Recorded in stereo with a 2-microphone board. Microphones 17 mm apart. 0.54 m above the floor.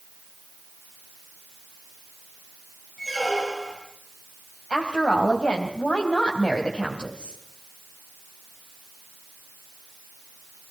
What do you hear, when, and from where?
3.0 s a squeak: 5° left (ahead or behind), 8 m
4.7 s a woman speaking: 70° left (ahead or behind), 3 m